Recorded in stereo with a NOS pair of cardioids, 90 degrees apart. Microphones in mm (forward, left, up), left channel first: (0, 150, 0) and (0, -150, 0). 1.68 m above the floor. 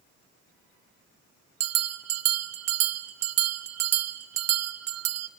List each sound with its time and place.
1.6 s a bell: 60° right, 0.7 m